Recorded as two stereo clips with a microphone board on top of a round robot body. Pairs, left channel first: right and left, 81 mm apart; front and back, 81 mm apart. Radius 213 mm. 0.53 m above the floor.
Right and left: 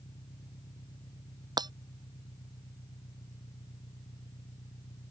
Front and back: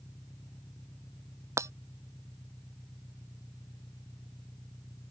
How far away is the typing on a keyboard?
No typing on a keyboard in this recording.